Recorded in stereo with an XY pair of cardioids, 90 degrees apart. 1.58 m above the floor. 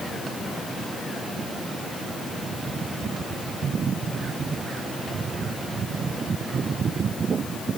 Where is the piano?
I don't hear a piano.